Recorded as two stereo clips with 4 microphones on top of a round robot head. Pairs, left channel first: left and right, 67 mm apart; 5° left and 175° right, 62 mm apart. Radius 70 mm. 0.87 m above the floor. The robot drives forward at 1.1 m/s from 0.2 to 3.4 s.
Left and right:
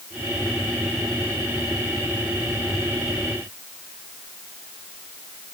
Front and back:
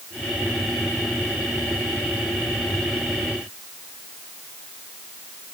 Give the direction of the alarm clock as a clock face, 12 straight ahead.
I don't hear an alarm clock.